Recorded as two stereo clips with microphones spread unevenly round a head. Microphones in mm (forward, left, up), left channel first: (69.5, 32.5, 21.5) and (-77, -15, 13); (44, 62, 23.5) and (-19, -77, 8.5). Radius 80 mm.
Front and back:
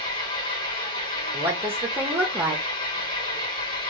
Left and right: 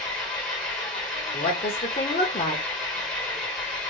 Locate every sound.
0.0 s an engine running: 10° right, 1.7 m
1.3 s a woman speaking: 120° left, 0.9 m